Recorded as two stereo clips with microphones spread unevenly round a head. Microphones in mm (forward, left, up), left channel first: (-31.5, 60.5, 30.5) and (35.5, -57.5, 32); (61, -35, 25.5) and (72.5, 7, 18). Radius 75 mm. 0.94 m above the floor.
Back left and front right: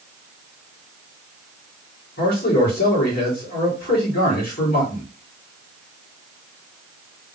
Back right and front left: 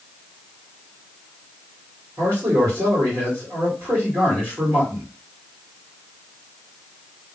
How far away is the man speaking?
About 2.5 m.